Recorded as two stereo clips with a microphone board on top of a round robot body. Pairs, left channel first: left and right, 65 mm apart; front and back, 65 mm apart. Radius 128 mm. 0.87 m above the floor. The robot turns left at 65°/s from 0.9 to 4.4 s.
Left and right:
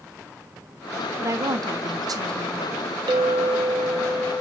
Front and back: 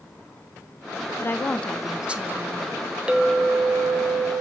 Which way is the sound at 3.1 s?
105° right.